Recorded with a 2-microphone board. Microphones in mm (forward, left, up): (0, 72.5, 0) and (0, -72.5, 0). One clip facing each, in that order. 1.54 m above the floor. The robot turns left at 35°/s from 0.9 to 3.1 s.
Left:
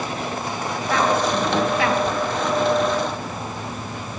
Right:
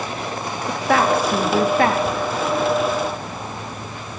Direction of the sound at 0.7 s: 75° right (ahead or behind).